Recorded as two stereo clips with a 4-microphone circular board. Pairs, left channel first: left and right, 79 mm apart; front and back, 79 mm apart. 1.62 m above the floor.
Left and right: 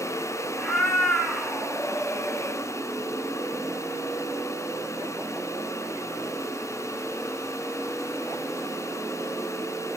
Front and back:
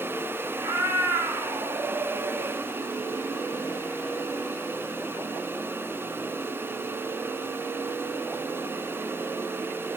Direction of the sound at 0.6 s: 165° left.